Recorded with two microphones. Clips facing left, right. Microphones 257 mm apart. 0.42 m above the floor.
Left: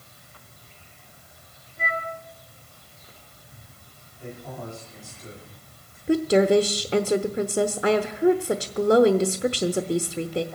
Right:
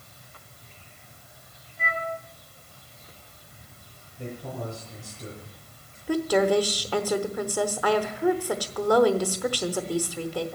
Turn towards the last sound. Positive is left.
turn(degrees=25)  # may be behind; listen again after turning